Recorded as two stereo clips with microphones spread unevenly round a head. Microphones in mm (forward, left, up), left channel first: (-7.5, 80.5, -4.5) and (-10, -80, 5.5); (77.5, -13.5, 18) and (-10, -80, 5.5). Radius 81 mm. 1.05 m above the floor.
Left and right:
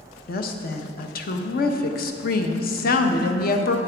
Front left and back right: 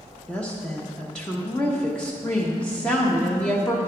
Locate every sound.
0.3 s a woman speaking: 125° left, 0.8 m